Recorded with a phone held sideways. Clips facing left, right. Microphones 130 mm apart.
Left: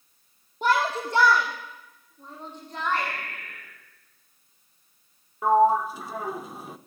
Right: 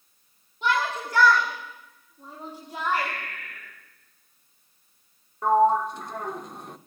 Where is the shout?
45° left (ahead or behind), 2.5 m; by 3.1 s 15° right (ahead or behind), 4.5 m.